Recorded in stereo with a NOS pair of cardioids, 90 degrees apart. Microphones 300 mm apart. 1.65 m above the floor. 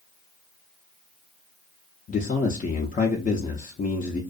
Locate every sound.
2.1 s a man speaking: 25° left, 0.5 m